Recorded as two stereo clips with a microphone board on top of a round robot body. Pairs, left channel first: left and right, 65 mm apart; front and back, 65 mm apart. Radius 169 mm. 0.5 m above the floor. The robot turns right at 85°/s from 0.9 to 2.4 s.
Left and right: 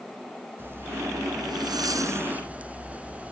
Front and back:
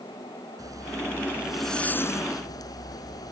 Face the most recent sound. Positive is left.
turn(degrees=-20)